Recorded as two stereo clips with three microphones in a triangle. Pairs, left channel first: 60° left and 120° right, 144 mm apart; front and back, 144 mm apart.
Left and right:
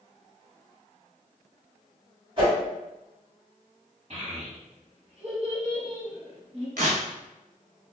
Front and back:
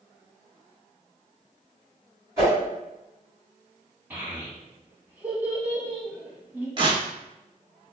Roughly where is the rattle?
I don't hear a rattle.